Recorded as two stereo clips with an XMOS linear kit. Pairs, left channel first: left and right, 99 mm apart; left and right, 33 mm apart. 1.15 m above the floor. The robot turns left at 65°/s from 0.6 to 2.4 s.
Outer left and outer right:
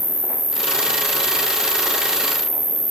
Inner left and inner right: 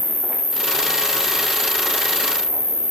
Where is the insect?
165° left, 0.8 m; by 2.9 s 45° left, 0.8 m.